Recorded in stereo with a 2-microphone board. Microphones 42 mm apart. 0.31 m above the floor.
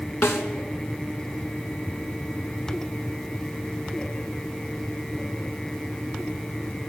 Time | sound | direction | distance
0.2 | a snare drum | 70° left (ahead or behind) | 3.5 m